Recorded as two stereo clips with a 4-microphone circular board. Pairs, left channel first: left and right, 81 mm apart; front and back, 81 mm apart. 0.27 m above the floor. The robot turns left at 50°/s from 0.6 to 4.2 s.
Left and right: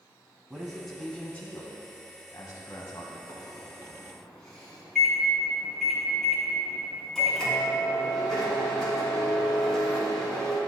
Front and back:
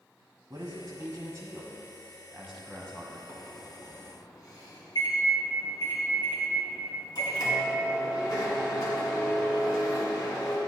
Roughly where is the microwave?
Ahead left.